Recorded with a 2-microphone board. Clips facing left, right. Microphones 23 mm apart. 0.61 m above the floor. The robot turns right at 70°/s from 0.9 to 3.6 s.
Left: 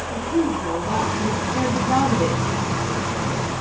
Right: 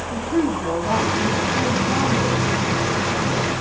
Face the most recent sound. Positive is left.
turn(degrees=150)